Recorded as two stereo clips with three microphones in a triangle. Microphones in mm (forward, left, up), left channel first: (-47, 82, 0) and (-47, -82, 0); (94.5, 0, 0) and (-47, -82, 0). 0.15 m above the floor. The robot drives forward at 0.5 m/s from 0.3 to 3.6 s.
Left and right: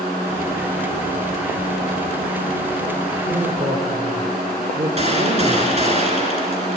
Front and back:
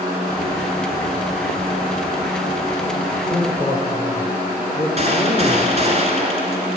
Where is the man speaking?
65° right, 3 m; by 6.0 s 70° right, 2.5 m.